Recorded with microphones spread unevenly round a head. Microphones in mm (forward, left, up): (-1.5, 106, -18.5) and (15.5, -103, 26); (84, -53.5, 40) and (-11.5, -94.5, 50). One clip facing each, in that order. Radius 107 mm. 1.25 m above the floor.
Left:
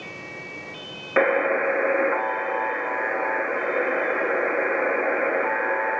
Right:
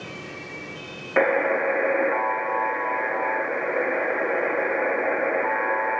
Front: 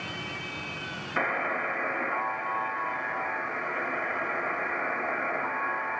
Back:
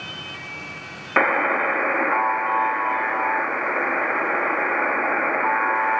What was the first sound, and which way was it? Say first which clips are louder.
A buzzer: even, back 10 dB; 175° left.